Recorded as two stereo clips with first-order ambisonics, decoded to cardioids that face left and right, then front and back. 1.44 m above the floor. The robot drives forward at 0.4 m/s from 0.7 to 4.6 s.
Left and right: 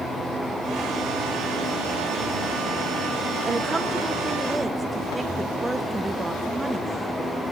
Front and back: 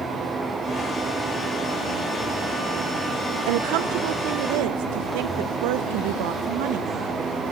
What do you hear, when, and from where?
3.5 s a woman speaking: 170° right, 0.8 m